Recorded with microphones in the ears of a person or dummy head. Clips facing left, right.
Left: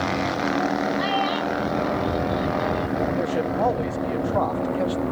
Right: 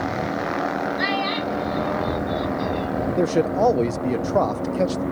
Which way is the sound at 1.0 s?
25° right (ahead or behind).